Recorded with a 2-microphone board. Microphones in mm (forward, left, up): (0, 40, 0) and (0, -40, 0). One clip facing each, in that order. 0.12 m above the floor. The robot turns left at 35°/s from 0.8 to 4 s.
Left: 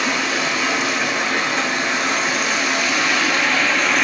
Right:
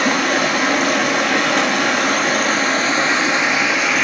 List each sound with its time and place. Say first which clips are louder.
0.0 s running water: right 4 dB; 65° right, 0.7 m; by 4.0 s 175° right, 0.7 m